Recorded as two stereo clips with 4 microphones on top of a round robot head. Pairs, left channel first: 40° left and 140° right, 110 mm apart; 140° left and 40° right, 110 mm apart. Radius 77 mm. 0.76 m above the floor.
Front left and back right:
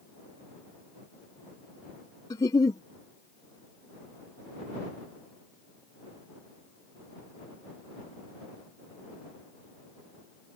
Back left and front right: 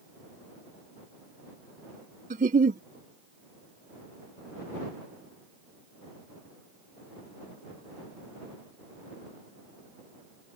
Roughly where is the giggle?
Ahead.